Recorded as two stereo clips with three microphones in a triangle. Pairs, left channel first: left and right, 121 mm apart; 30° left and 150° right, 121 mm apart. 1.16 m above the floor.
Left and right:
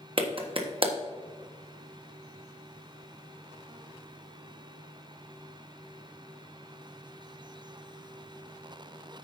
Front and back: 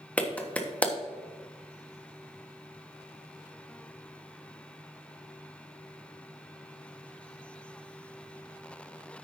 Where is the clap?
50° right, 1.3 m.